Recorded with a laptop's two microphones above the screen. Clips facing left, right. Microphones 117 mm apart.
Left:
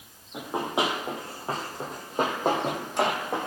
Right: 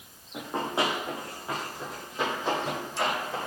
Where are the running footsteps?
10° left (ahead or behind), 1.5 m; by 3.5 s 60° left (ahead or behind), 2 m.